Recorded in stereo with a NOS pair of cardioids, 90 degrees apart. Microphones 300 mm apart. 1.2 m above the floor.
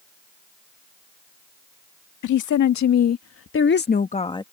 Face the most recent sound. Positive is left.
turn(degrees=10)